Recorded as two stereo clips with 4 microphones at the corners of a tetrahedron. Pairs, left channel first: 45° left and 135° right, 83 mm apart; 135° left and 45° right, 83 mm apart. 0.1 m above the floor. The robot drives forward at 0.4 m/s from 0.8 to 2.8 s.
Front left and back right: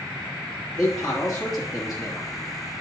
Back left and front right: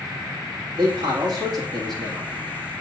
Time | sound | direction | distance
0.8 | a man speaking | 40° right | 3 m